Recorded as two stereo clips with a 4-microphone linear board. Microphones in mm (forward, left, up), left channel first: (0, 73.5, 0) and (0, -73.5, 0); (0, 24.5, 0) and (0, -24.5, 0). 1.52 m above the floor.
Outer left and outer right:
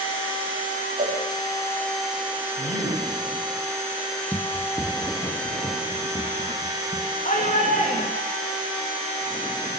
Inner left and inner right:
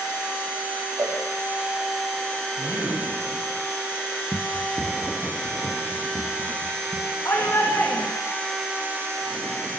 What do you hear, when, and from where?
1.0 s a cowbell: 65° right (ahead or behind), 4 m
2.6 s a man speaking: 75° left (ahead or behind), 9 m
4.3 s running footsteps: 5° left (ahead or behind), 1.6 m; by 7.1 s 35° left (ahead or behind), 4 m
7.2 s a shout: 65° left (ahead or behind), 3 m